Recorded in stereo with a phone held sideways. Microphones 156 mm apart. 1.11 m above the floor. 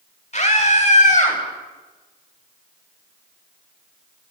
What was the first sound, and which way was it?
A scream, 45° left (ahead or behind).